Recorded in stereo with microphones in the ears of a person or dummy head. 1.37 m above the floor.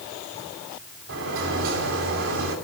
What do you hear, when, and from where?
1.1 s a sliding door: 75° right (ahead or behind), 3 m